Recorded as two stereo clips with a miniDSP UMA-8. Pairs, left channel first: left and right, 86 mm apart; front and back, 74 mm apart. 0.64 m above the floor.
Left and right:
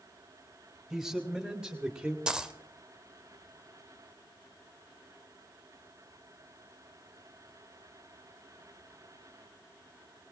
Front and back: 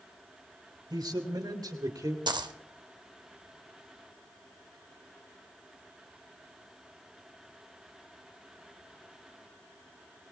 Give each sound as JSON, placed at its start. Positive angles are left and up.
{"t": 0.9, "sound": "a man speaking", "azimuth_deg": -175, "distance_m": 4.0}
{"t": 2.3, "sound": "a dropped coin", "azimuth_deg": -170, "distance_m": 0.8}